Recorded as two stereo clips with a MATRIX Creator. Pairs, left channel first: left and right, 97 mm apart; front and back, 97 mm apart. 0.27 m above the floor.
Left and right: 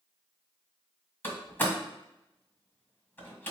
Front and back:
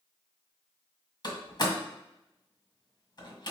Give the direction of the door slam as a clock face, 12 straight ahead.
11 o'clock.